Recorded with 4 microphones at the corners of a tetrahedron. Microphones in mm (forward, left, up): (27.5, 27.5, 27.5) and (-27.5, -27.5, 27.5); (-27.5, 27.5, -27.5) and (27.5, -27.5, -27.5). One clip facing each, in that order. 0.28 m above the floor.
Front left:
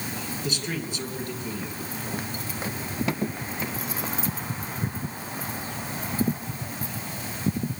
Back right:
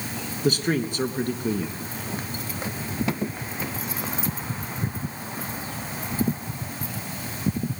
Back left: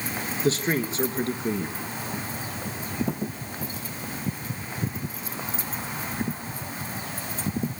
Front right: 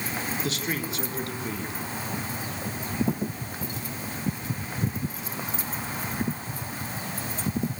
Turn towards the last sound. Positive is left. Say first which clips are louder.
# back right 10 dB, back left 6 dB
turn(degrees=-170)